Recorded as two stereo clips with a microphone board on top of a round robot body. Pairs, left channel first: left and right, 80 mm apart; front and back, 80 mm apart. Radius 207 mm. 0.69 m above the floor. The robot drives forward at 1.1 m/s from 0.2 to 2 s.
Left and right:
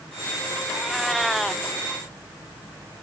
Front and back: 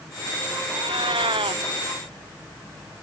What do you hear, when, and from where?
0.7 s a cat meowing: straight behind